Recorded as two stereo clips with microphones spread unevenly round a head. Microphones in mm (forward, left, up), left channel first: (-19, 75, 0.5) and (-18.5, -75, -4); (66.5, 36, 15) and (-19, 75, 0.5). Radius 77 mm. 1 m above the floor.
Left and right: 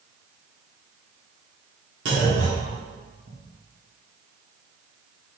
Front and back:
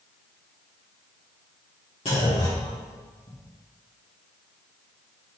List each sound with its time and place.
2.0 s a clunk: 75° right, 3 m